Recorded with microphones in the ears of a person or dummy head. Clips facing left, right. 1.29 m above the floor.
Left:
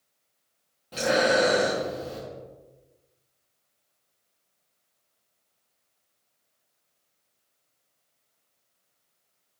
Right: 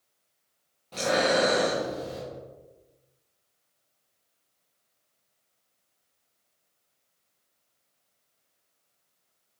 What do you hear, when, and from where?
0.9 s breathing: 10° left (ahead or behind), 1.3 m